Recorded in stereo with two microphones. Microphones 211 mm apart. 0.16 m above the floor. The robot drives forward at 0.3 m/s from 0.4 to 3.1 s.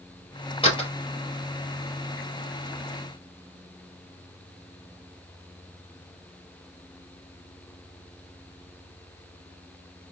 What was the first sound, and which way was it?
A door slam, 25° left (ahead or behind).